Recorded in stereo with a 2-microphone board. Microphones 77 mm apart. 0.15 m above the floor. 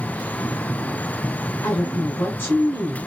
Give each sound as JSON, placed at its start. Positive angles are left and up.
{"t": 1.6, "sound": "a woman speaking", "side_deg": 25, "distance_m": 2.0}